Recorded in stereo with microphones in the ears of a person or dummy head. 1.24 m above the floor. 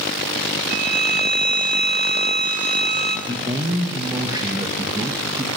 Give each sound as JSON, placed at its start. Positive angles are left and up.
{"t": 0.7, "sound": "a violin", "side_deg": -55, "distance_m": 0.8}
{"t": 3.3, "sound": "a man speaking", "side_deg": -20, "distance_m": 1.4}